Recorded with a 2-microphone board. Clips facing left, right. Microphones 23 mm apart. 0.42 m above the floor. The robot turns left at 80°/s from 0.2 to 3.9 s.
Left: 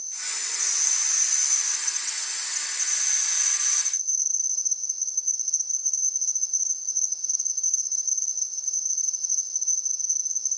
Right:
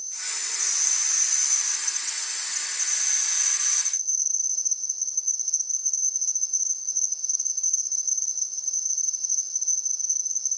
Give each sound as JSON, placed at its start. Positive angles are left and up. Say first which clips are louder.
{"t": 0.0, "sound": "an insect", "louder": "even", "azimuth_deg": -115, "distance_m": 6.0}